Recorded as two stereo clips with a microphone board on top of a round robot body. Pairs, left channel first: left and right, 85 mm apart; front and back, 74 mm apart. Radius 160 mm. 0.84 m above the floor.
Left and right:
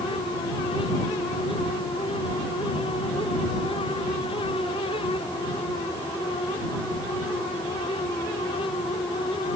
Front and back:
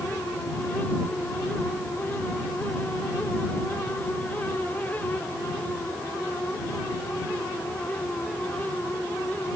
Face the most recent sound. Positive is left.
No sound to turn to.